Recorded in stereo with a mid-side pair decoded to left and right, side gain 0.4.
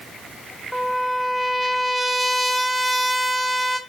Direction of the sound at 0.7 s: 15° left.